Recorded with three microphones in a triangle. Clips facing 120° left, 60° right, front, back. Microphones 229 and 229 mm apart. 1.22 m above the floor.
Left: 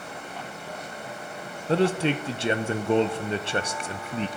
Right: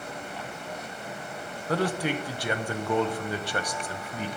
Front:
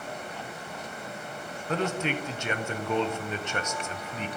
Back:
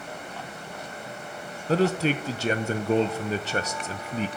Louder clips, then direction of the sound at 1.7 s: Left 5 dB, back 6 dB; 165° left.